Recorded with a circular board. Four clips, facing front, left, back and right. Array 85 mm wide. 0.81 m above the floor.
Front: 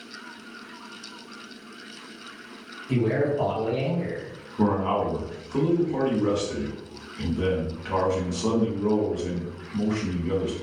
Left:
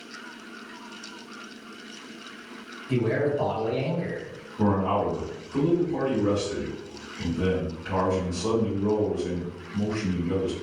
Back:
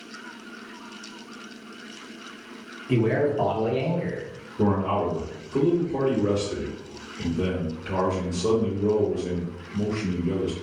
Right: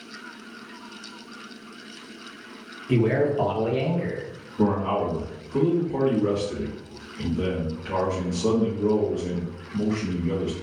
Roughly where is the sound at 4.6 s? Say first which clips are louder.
Right 1 dB, even; ahead.